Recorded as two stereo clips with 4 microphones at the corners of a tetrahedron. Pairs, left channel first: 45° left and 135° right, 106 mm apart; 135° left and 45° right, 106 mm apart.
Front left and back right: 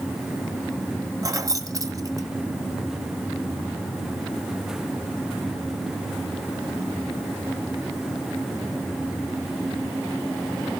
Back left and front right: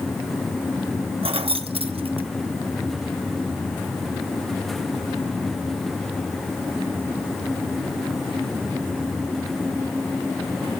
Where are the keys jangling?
75° right, 0.8 m.